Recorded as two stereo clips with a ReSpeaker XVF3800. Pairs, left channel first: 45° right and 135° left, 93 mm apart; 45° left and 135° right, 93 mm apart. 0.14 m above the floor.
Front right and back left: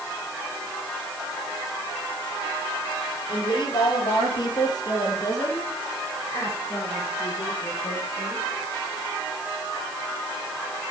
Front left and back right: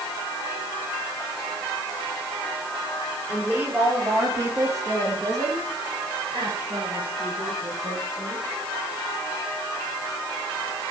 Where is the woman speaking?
65° right, 3.5 m; by 8.4 s 110° right, 6 m.